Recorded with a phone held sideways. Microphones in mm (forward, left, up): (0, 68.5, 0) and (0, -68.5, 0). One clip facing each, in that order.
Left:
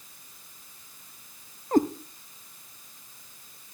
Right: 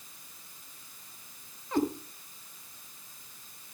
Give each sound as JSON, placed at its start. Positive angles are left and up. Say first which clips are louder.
{"t": 1.7, "sound": "a cat meowing", "louder": "left 6 dB", "side_deg": 45, "distance_m": 0.9}